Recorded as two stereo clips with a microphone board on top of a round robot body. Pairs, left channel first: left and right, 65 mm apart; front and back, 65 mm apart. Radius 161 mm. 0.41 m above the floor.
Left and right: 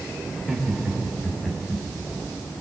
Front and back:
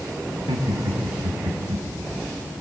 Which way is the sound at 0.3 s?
175° right.